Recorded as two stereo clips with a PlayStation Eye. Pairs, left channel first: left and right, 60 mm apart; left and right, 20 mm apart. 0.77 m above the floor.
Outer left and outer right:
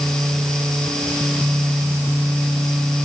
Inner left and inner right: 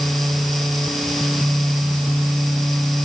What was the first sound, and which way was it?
Only background noise.